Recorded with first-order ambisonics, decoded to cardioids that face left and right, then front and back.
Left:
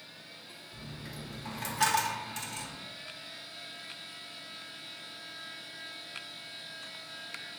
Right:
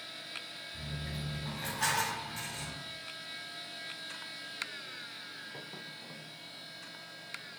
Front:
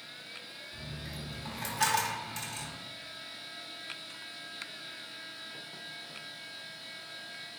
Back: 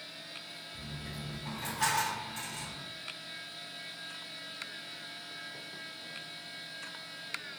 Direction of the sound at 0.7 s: 50° left.